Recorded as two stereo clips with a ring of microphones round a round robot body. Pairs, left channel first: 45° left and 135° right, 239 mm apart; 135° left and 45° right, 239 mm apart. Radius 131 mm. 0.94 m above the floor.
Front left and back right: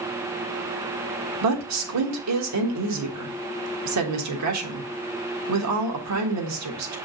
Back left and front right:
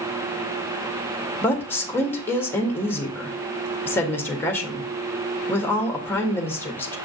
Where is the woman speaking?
145° right, 1.6 m.